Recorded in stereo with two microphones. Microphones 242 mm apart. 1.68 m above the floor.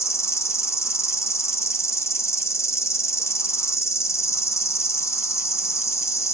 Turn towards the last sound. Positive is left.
turn(degrees=10)  # may be behind; listen again after turning